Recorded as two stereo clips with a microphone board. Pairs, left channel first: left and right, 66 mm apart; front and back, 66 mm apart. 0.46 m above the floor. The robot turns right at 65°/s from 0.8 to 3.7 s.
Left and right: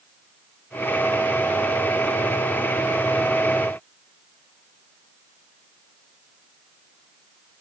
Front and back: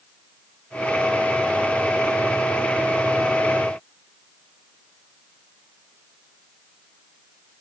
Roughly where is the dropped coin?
No dropped coin in this recording.